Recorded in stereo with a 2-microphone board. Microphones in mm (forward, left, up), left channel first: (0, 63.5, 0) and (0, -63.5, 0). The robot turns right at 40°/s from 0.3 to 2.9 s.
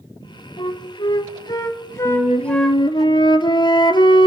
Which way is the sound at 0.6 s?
40° left (ahead or behind).